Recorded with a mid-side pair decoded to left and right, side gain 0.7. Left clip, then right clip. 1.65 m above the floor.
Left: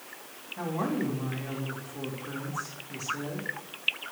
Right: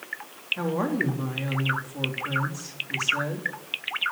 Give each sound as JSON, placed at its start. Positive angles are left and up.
{"t": 0.6, "sound": "a woman speaking", "azimuth_deg": -40, "distance_m": 3.0}